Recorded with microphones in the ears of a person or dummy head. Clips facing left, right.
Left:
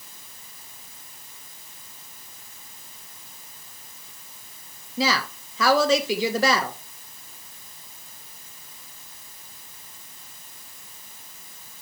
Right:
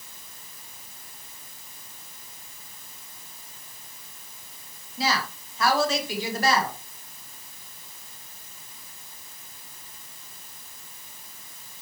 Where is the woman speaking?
60° left (ahead or behind), 1.2 m.